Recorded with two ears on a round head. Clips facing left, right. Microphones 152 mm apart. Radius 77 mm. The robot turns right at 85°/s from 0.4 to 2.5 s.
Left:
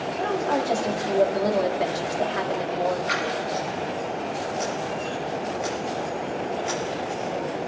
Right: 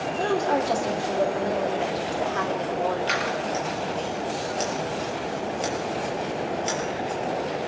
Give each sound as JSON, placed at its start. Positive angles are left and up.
{"t": 0.1, "sound": "a woman speaking", "azimuth_deg": -15, "distance_m": 2.5}
{"t": 3.1, "sound": "scissors", "side_deg": -45, "distance_m": 7.5}